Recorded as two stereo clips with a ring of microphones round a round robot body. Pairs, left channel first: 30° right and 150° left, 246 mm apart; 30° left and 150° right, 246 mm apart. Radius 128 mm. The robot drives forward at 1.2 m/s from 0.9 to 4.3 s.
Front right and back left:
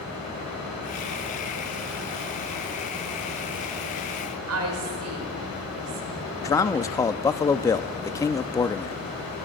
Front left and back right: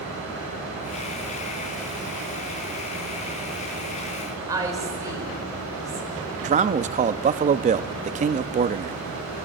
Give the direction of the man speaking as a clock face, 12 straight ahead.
3 o'clock.